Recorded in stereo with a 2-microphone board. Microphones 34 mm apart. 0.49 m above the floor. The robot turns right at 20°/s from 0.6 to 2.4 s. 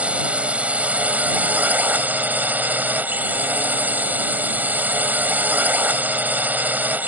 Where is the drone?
130° right; by 7.1 s 90° right.